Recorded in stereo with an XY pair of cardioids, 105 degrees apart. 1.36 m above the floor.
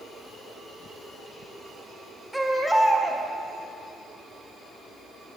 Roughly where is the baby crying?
Ahead.